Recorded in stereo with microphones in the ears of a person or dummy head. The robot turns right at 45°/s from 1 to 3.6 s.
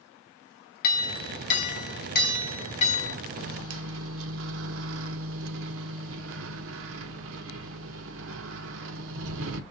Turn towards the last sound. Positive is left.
turn(degrees=-75)  # may be behind; listen again after turning